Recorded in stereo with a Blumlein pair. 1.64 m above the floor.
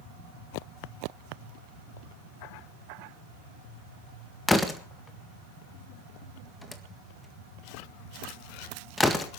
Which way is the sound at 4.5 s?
10° left.